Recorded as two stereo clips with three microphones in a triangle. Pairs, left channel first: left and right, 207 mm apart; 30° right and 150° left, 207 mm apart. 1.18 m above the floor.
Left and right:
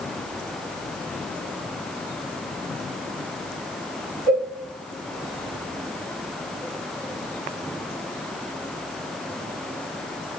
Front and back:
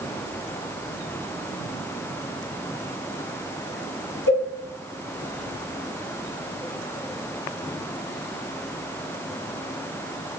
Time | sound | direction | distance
4.3 | a cowbell | 165° left | 1.7 m